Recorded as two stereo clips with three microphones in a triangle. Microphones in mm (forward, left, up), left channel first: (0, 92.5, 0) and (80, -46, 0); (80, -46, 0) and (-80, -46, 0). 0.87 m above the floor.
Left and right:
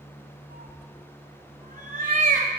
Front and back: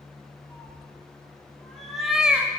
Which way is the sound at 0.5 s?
80° right.